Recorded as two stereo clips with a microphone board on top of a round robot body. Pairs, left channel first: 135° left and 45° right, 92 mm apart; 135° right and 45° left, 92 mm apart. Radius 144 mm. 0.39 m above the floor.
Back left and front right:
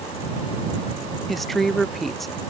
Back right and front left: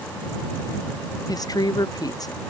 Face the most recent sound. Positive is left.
turn(degrees=-135)